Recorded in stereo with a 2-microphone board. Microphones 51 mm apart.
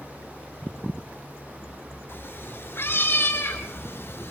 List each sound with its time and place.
2.1 s a cat meowing: 50° left (ahead or behind), 7.5 m